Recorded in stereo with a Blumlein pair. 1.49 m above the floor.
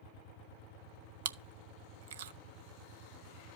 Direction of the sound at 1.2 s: 60° right.